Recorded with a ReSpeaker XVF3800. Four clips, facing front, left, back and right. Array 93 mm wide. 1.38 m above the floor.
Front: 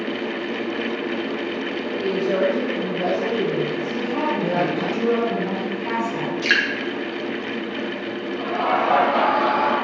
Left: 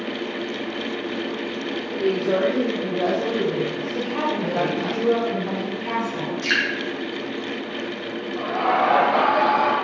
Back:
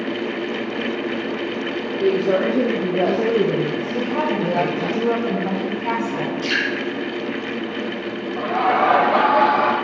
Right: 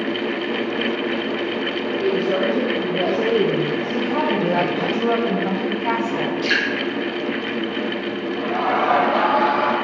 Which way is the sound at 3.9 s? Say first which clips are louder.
Right 4 dB, back 2 dB; 115° right.